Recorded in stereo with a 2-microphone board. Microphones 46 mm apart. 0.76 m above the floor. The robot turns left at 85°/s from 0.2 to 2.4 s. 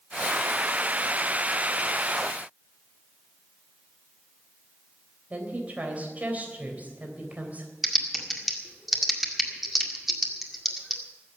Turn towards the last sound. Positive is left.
turn(degrees=-5)  # may be behind; listen again after turning